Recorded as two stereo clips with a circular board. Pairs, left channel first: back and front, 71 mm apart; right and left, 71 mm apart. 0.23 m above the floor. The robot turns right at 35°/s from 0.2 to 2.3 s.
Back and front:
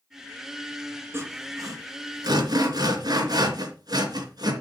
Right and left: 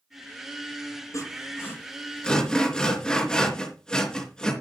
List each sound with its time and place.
1.1 s sawing: 55° right, 3 m; by 4.5 s 10° right, 3 m